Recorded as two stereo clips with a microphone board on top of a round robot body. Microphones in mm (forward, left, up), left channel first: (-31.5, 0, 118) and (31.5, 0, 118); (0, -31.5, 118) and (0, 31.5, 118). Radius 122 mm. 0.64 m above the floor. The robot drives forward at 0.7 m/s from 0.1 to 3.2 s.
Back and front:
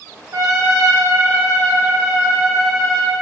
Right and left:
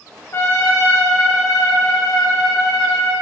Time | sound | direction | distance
0.3 | a trumpet | 40° right | 2 m